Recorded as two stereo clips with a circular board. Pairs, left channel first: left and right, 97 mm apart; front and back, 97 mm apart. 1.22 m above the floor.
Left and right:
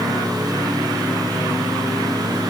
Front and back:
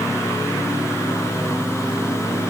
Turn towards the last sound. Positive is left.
No sound to turn to.